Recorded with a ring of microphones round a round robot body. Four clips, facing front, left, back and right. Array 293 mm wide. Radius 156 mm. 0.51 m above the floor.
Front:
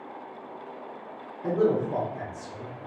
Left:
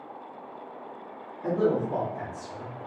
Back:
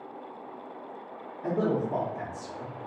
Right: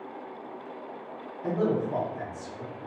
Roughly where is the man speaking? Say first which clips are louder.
Left 2 dB, front 4 dB; behind left.